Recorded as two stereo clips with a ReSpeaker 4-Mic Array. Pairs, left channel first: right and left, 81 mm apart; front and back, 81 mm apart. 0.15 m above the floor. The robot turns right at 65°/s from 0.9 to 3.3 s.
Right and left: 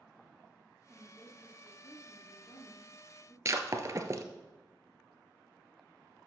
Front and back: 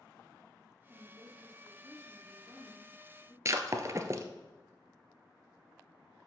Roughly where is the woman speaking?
Behind left.